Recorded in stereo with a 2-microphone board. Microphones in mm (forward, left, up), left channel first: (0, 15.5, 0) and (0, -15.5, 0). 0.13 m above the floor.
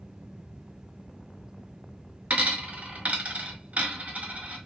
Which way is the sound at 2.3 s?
45° right (ahead or behind).